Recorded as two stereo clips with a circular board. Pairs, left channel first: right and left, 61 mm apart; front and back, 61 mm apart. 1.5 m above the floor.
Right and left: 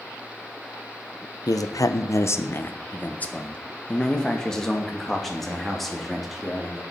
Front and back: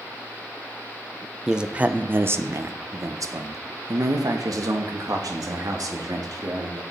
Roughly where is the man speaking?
Right.